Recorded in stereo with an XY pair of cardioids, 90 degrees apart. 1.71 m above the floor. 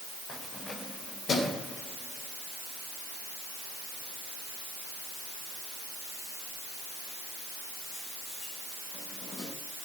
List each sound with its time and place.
0.3 s keys jangling: 60° left, 4.5 m; by 9.5 s 75° left, 9.5 m